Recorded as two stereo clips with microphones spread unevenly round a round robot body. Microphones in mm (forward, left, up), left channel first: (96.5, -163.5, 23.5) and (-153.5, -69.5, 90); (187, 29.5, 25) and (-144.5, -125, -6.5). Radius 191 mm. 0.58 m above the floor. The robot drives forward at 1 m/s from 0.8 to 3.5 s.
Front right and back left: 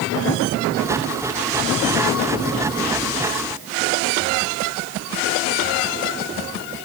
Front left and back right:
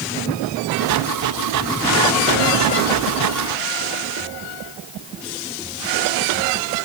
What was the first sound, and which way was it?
Only background noise.